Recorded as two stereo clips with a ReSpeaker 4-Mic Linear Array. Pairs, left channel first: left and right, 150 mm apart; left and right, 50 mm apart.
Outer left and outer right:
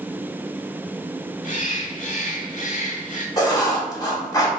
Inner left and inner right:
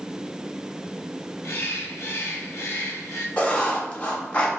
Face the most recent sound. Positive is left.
turn(degrees=25)  # may be behind; listen again after turning